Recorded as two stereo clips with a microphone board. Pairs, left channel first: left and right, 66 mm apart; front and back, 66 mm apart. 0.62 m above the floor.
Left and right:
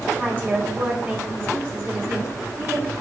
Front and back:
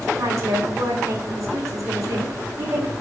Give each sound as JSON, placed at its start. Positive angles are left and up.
{"t": 0.2, "sound": "a woman speaking", "azimuth_deg": -145, "distance_m": 2.0}